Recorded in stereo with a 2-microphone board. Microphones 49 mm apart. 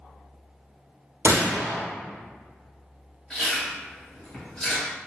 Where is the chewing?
15° left (ahead or behind), 2.0 m.